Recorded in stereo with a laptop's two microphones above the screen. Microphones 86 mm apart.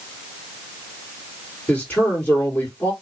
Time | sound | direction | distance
1.7 | a man speaking | 15° left (ahead or behind) | 3.5 m